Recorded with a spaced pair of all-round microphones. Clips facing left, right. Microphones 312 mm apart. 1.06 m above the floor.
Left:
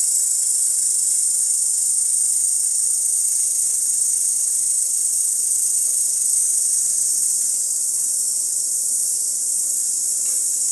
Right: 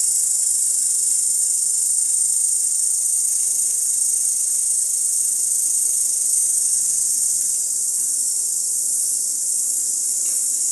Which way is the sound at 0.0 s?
45° right (ahead or behind).